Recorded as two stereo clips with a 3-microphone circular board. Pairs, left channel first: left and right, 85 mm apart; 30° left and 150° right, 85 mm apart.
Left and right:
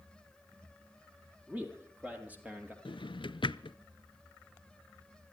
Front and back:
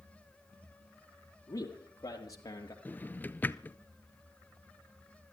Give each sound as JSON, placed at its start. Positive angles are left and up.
{"t": 1.5, "sound": "a man speaking", "azimuth_deg": -15, "distance_m": 4.0}
{"t": 2.9, "sound": "a drawer", "azimuth_deg": 95, "distance_m": 0.5}